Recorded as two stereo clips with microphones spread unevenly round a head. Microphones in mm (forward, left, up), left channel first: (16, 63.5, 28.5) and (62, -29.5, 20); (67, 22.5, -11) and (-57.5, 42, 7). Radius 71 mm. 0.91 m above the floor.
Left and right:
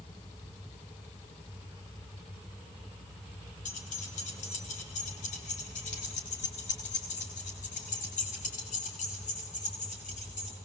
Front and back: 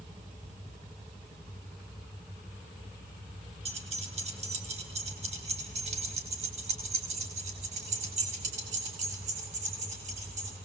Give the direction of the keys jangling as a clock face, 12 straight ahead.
8 o'clock.